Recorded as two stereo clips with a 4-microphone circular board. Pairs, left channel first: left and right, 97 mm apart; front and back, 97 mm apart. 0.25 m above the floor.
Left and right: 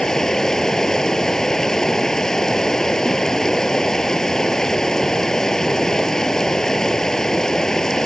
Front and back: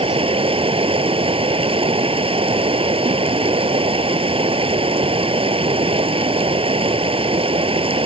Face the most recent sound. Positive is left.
turn(degrees=175)